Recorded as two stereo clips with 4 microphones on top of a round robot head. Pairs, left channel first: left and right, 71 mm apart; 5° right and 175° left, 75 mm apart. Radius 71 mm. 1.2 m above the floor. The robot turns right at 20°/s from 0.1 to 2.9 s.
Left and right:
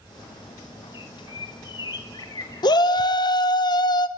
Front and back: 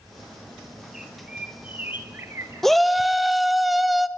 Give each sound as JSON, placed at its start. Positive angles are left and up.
{"t": 0.9, "sound": "a bird", "azimuth_deg": 90, "distance_m": 3.0}
{"t": 2.6, "sound": "a shout", "azimuth_deg": 80, "distance_m": 0.9}